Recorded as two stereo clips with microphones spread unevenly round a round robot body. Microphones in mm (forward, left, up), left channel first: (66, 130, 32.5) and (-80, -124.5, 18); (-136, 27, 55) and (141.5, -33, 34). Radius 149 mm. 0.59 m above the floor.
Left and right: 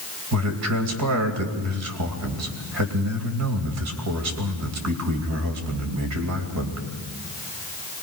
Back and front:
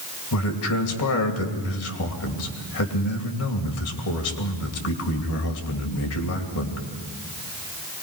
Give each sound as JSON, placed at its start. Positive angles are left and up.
{"t": 0.3, "sound": "a man speaking", "azimuth_deg": -150, "distance_m": 2.5}